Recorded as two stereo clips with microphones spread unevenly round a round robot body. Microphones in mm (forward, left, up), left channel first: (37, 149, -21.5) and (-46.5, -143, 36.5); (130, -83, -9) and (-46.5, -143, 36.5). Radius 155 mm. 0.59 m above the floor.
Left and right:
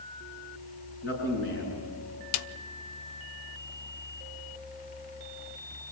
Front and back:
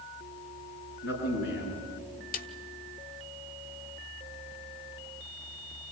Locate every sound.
1.0 s a man speaking: 20° left, 8 m
2.3 s a snare drum: 50° left, 0.6 m